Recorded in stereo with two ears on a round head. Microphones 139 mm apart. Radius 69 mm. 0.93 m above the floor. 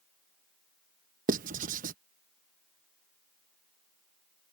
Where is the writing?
55° right (ahead or behind).